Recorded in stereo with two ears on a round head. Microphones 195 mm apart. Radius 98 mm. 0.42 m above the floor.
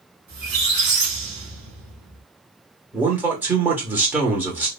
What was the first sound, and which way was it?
A squeak, 45° right (ahead or behind).